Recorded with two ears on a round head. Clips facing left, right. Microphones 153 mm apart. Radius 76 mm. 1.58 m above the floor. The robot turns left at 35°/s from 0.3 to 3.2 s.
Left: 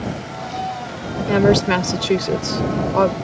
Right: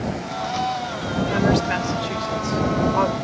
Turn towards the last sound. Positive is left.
turn(degrees=45)